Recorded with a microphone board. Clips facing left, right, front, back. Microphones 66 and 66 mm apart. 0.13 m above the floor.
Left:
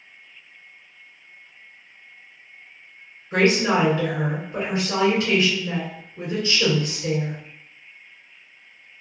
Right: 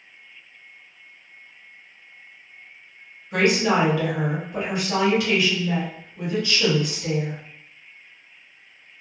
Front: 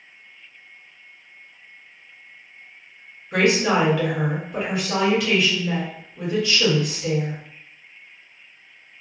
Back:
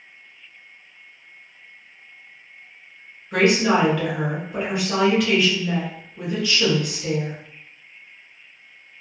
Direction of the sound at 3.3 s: 85° left.